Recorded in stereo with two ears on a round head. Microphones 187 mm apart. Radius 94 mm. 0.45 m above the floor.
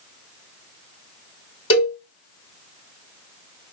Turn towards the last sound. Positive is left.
turn(degrees=25)  # may be behind; listen again after turning